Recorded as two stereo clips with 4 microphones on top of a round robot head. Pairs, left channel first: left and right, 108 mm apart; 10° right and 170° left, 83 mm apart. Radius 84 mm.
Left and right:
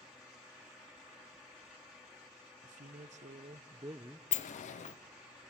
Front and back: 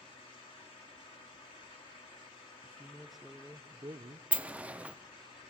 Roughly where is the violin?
I don't hear a violin.